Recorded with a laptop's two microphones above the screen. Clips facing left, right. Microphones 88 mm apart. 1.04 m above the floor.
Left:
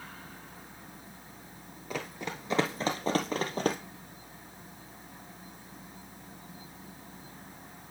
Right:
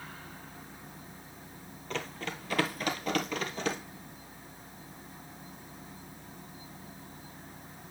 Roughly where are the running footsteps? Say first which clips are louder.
Even; centre.